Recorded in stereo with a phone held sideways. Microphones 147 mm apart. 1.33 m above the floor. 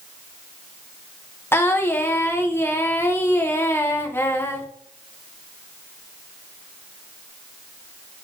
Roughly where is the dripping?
I don't hear dripping.